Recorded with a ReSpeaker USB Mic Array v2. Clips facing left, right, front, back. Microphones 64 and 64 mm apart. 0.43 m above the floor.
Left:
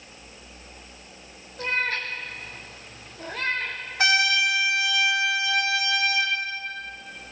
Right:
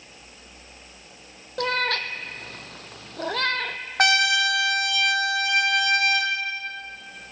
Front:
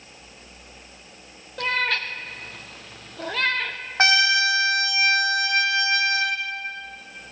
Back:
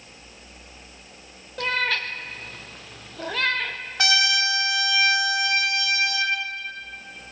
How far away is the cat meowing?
About 1.3 m.